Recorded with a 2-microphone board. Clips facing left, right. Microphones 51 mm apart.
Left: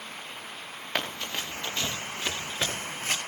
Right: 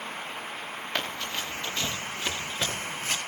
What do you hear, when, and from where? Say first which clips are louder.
0.9 s running footsteps: left 1 dB; 10° left (ahead or behind), 3 m; by 3.2 s 30° left (ahead or behind), 2.5 m